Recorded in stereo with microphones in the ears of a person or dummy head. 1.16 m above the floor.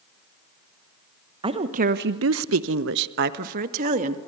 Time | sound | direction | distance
1.4 | a woman speaking | 30° right (ahead or behind) | 1.1 m